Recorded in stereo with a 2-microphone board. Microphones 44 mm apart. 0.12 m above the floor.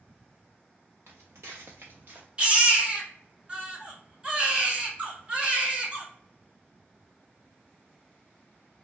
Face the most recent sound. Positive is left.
turn(degrees=-25)  # may be behind; listen again after turning